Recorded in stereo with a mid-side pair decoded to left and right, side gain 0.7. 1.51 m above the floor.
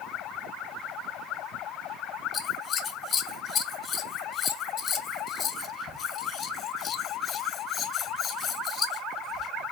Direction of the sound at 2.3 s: 35° left.